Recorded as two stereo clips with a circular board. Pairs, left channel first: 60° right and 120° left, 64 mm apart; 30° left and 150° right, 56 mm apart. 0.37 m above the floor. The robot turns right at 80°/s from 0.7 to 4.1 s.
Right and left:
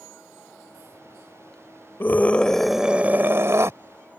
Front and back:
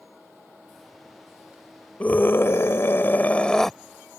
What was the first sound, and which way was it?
A scream, 20° right.